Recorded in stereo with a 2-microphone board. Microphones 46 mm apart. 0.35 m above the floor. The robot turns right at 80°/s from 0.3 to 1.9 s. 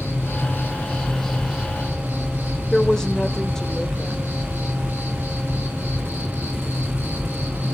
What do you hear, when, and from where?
0.0 s an insect: 100° left, 4 m; by 7.8 s 130° right, 4 m
2.7 s a woman speaking: 15° left (ahead or behind), 0.9 m